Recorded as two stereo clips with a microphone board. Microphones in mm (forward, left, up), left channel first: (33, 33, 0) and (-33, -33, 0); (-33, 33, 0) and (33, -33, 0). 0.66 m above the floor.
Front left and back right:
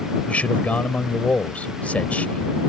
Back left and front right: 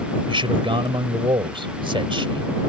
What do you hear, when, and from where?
0.3 s a man speaking: 30° right